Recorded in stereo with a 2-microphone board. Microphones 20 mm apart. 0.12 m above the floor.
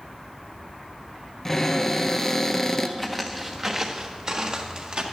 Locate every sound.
1.4 s a cupboard door: 20° left (ahead or behind), 0.8 m
3.0 s footsteps: centre (ahead or behind), 0.8 m; by 5.0 s 45° right (ahead or behind), 1.8 m